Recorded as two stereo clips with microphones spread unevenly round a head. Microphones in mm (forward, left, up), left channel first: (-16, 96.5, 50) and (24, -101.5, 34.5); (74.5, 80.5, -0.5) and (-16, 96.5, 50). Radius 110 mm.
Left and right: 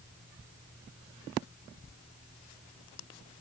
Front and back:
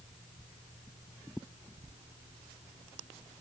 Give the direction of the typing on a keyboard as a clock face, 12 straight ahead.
No typing on a keyboard in this recording.